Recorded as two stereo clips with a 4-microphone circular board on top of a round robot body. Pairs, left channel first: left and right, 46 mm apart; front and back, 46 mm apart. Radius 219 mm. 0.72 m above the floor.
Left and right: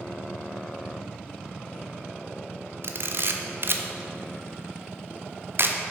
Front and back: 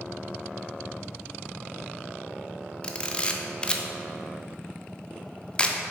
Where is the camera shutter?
65° right, 0.9 m.